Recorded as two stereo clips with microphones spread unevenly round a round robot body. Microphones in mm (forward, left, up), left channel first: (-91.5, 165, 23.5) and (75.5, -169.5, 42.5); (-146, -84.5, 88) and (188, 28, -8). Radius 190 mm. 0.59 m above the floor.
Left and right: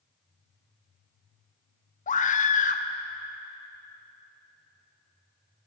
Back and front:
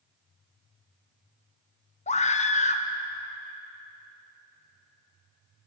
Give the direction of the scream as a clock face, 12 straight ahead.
8 o'clock.